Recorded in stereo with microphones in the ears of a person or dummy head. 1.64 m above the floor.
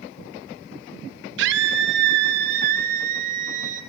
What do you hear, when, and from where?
1.4 s a scream: 70° right (ahead or behind), 2 m; by 3.8 s 45° right (ahead or behind), 4 m